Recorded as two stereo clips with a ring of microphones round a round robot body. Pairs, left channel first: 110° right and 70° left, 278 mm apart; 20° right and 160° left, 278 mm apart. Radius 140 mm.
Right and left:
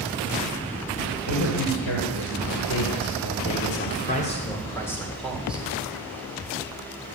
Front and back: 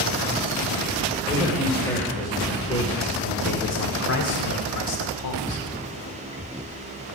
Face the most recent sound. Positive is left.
turn(degrees=-15)